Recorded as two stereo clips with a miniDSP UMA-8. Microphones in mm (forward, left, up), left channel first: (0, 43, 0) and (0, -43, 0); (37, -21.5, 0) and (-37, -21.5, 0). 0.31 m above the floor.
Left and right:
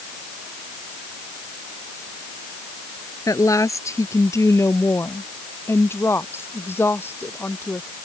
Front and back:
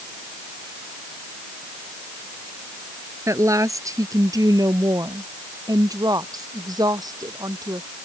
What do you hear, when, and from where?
3.3 s a woman speaking: 135° left; by 7.9 s 155° left